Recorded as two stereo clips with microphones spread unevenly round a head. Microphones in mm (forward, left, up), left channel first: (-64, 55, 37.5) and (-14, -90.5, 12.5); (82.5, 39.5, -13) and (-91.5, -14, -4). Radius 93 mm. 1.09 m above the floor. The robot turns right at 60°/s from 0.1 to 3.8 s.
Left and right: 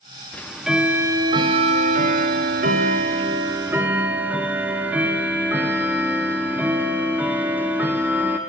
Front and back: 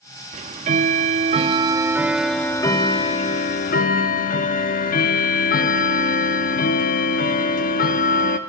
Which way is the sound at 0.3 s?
170° left.